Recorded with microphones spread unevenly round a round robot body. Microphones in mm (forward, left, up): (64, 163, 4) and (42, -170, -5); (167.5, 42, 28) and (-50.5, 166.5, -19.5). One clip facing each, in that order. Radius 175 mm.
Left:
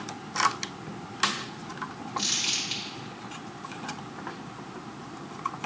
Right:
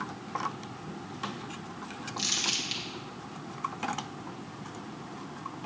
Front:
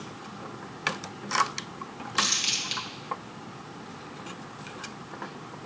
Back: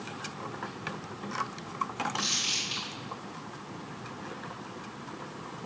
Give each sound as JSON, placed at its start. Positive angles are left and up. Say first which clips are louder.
{"t": 2.2, "sound": "crumpling", "louder": "left 1 dB, front 2 dB", "azimuth_deg": -20, "distance_m": 1.9}